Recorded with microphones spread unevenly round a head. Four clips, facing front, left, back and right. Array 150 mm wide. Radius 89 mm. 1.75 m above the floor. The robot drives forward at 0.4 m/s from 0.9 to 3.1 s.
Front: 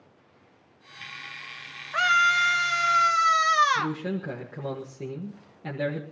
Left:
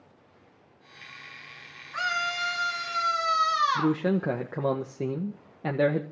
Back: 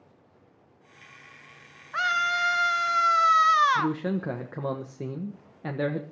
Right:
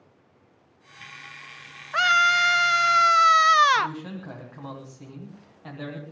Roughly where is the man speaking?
Left.